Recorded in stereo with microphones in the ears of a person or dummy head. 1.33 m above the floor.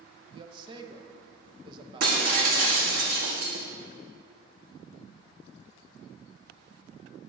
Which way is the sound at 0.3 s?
25° right (ahead or behind).